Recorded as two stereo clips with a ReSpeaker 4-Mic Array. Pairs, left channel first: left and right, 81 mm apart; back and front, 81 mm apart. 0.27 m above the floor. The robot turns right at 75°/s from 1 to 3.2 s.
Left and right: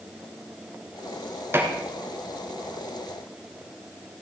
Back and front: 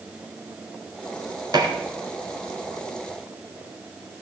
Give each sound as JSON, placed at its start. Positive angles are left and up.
{"t": 1.5, "sound": "dishes clattering", "azimuth_deg": -30, "distance_m": 2.0}